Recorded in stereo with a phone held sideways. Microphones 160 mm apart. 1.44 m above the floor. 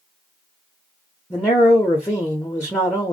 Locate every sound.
1.3 s a man speaking: 15° left (ahead or behind), 0.7 m